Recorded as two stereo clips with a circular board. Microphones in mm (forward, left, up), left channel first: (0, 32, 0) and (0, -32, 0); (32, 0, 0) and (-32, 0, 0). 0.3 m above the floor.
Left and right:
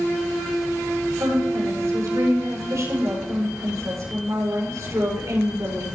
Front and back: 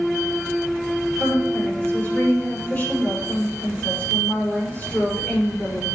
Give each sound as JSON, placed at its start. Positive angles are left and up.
{"t": 1.2, "sound": "a woman speaking", "azimuth_deg": -60, "distance_m": 6.5}